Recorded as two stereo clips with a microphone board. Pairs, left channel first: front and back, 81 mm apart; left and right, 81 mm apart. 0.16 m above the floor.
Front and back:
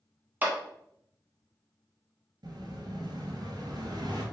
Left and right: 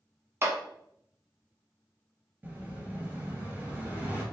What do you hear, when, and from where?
0.4 s a clap: 125° right, 1.2 m
2.4 s an explosion: 160° right, 1.6 m